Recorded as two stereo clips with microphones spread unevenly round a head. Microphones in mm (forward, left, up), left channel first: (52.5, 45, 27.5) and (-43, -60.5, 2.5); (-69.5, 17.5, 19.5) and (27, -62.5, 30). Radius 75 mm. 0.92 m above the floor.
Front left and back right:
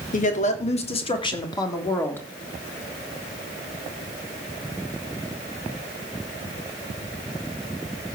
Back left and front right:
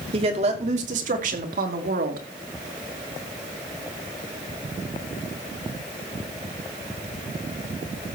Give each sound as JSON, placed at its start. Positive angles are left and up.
{"t": 0.1, "sound": "a woman speaking", "azimuth_deg": 10, "distance_m": 2.5}